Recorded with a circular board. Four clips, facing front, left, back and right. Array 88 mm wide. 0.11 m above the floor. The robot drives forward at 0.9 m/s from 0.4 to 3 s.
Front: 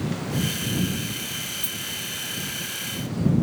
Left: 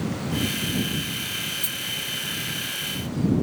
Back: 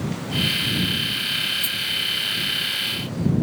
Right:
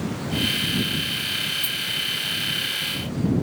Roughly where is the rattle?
Behind left.